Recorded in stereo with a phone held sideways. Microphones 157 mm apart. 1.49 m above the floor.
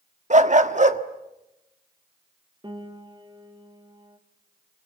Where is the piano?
30° right (ahead or behind), 2 m.